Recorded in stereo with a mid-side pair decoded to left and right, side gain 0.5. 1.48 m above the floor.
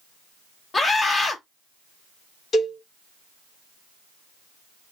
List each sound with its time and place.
0.7 s a scream: 30° left, 1.2 m
2.5 s a cowbell: 50° left, 1.8 m